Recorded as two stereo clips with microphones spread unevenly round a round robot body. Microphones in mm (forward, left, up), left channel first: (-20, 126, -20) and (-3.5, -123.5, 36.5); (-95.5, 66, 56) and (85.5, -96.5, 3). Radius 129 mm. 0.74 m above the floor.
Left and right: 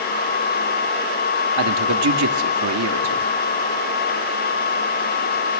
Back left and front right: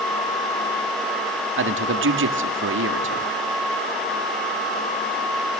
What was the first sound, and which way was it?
A man speaking, 60° right.